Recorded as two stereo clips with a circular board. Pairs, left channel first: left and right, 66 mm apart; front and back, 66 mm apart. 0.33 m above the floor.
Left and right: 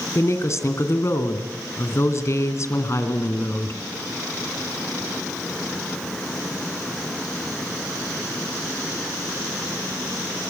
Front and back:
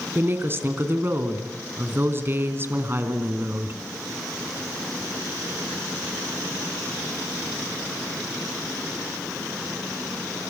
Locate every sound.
0.1 s a woman speaking: 130° left, 3 m